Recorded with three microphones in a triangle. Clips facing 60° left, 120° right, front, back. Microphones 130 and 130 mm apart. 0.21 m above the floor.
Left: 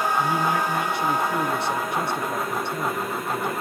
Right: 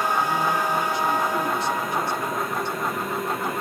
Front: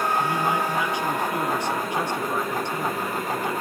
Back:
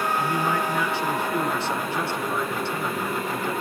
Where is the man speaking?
75° left, 2 m.